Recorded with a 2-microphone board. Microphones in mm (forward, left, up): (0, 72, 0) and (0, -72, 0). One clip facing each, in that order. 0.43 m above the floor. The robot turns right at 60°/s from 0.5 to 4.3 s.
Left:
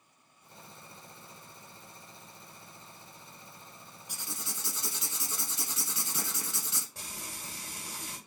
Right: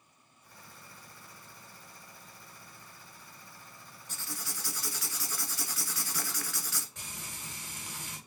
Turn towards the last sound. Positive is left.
turn(degrees=35)  # may be behind; listen again after turning